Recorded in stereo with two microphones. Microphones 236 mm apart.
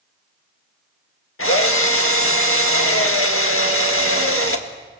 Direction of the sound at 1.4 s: 65° left (ahead or behind).